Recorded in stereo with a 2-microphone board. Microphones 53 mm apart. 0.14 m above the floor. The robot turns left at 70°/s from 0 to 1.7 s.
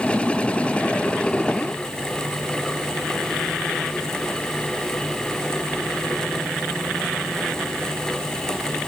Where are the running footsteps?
No running footsteps in this recording.